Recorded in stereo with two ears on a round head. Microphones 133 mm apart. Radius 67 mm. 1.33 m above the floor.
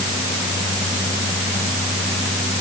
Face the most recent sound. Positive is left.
No sound to turn to.